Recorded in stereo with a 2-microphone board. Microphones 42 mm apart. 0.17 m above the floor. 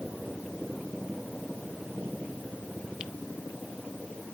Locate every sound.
Only background noise.